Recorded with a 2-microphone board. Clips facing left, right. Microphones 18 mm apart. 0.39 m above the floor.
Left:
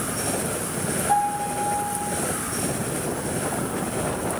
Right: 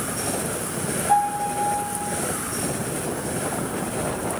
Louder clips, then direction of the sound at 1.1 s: Right 2 dB; 5° left (ahead or behind).